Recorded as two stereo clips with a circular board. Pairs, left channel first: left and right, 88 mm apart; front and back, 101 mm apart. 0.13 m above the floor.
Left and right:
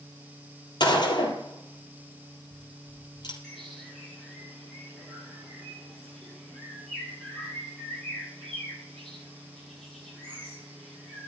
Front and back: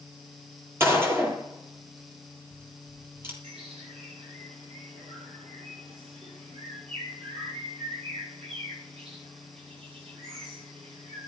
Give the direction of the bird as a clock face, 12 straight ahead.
6 o'clock.